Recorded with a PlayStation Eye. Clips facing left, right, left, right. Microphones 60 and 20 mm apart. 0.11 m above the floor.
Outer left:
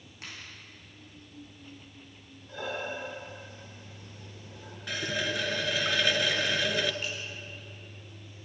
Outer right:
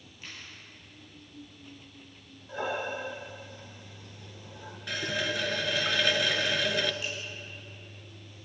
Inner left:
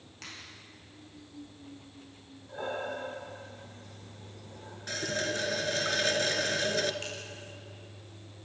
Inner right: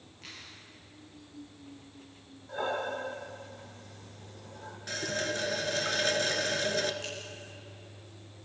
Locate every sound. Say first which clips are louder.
0.2 s a finger snap: outer left 1 dB, inner left 1 dB; 70° left (ahead or behind), 5.5 m
2.5 s breathing: outer right 3 dB, inner right 3 dB; 25° right (ahead or behind), 3 m
4.9 s a running tap: even, inner left 1 dB; centre (ahead or behind), 1.1 m
7.0 s a clink: even, even; 45° left (ahead or behind), 7 m